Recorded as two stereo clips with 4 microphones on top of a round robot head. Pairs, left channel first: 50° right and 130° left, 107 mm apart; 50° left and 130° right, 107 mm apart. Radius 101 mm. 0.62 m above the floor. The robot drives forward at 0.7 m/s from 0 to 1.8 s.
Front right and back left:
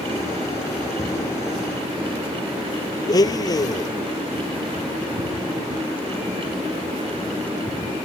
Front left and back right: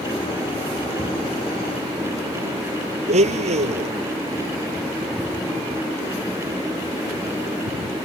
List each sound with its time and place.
3.1 s a blender: 110° right